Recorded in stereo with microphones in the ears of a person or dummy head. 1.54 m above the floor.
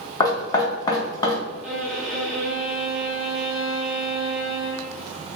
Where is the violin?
5° right (ahead or behind), 0.7 m.